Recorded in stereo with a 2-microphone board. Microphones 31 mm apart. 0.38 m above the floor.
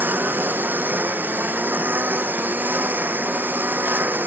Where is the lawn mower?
85° right.